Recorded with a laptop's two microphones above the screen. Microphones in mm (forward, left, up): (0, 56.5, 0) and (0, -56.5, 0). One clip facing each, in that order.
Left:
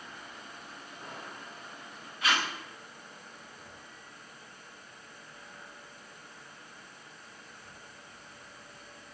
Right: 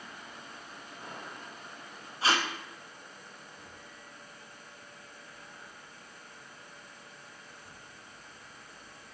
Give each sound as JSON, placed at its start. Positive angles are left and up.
{"t": 2.2, "sound": "tape being pulled", "side_deg": -30, "distance_m": 0.6}